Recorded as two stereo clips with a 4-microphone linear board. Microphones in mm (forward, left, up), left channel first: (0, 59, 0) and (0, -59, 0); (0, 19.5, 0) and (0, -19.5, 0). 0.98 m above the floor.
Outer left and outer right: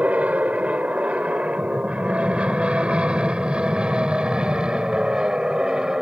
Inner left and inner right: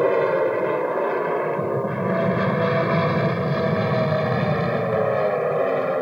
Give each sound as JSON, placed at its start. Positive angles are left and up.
{"t": 0.0, "sound": "an aircraft", "side_deg": -10}